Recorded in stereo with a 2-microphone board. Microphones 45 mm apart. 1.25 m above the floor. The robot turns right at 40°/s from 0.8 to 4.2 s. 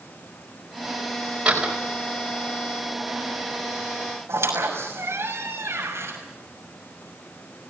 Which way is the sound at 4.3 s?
75° right (ahead or behind).